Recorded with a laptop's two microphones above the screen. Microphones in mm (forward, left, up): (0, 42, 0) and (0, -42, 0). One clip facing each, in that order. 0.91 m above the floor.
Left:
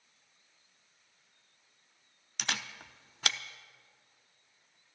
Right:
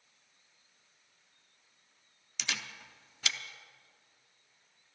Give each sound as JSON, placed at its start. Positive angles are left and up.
{"t": 2.4, "sound": "a camera shutter", "side_deg": 50, "distance_m": 0.6}